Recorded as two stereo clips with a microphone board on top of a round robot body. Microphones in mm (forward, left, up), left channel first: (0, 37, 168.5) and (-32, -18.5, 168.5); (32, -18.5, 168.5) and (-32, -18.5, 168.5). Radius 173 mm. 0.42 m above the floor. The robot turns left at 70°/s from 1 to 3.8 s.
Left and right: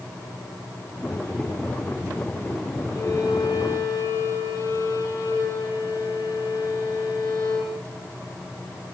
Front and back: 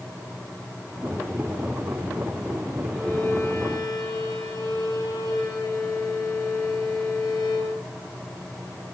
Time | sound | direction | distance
2.9 | a violin | 90° left | 9 m